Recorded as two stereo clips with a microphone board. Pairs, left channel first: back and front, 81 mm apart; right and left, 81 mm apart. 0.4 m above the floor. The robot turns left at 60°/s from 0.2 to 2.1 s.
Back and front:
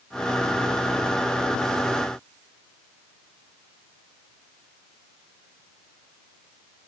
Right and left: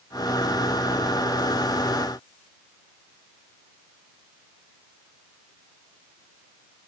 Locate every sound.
Only background noise.